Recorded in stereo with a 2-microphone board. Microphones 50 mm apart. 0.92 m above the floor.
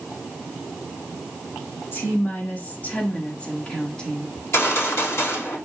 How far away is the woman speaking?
About 2 m.